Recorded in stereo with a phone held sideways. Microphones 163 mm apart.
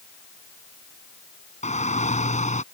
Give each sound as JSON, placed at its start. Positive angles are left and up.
{"t": 1.6, "sound": "a shout", "side_deg": 45}